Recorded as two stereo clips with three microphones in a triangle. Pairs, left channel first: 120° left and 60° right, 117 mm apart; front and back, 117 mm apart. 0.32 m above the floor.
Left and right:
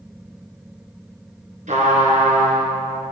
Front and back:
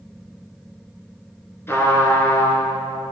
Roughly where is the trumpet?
Right.